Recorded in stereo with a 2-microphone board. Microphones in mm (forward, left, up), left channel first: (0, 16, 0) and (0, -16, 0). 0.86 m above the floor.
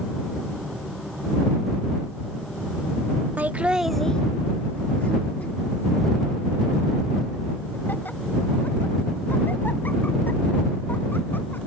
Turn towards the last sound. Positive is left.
turn(degrees=75)  # may be behind; listen again after turning